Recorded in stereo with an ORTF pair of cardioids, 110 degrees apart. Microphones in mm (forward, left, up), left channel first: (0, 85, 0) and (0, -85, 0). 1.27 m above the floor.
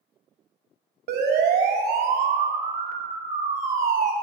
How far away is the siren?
About 3 m.